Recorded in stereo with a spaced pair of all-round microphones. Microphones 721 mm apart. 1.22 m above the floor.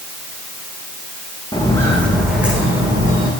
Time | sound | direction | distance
1.5 | footsteps | 5° left (ahead or behind) | 5.5 m